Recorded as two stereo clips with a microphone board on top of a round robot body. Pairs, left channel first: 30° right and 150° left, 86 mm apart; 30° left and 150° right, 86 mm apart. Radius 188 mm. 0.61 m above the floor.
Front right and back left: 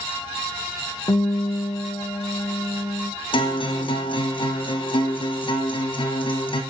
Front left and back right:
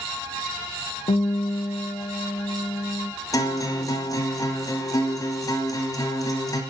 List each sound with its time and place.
1.1 s a guitar: 20° left, 0.6 m
3.3 s a guitar: 15° right, 1.1 m